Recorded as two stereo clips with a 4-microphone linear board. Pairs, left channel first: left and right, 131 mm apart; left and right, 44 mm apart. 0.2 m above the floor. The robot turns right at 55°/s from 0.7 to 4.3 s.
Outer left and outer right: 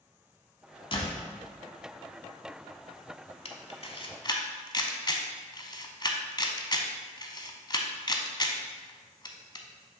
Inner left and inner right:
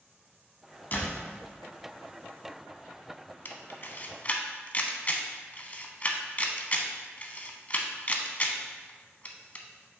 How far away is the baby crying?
I don't hear a baby crying.